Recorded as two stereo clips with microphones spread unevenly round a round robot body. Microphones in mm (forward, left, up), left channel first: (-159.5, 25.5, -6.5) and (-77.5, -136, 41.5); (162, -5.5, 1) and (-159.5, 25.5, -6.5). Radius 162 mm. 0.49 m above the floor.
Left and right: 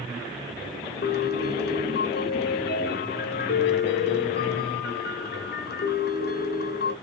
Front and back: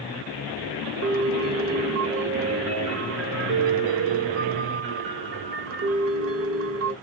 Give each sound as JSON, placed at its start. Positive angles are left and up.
{"t": 1.0, "sound": "a piano", "azimuth_deg": 125, "distance_m": 1.1}